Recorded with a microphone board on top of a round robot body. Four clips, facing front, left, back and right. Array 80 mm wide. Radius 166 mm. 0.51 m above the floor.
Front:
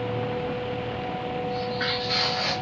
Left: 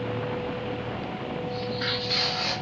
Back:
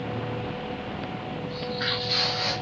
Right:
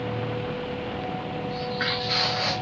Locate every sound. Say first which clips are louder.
1.5 s footsteps: right 3 dB, front 3 dB; 80° right, 3 m; by 2.5 s 75° right, 2.5 m